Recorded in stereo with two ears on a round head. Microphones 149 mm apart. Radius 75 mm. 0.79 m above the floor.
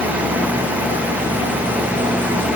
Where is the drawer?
I don't hear a drawer.